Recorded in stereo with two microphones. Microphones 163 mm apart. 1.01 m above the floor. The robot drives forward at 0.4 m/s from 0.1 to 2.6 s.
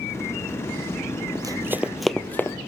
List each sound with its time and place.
1.4 s running footsteps: 25° right (ahead or behind), 1.1 m; by 2.6 s 15° left (ahead or behind), 1.3 m